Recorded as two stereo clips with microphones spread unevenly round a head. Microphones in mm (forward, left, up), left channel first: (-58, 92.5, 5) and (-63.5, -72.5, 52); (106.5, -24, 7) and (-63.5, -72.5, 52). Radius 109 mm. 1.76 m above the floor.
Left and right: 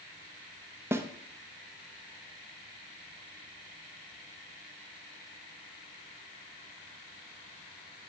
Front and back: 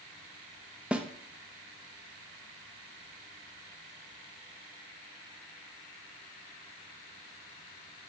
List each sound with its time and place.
0.9 s a snare drum: 115° right, 1.1 m